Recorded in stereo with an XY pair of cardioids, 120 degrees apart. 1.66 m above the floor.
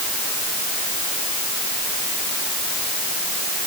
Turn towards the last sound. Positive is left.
No sound to turn to.